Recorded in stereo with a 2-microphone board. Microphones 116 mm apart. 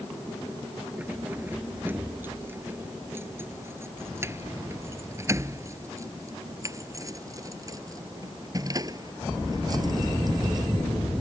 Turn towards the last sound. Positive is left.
turn(degrees=-35)  # may be behind; listen again after turning